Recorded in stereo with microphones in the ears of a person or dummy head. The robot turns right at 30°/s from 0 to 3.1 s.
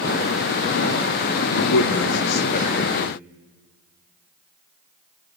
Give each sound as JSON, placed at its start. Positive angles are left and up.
{"t": 1.5, "sound": "a man speaking", "side_deg": 80, "distance_m": 1.0}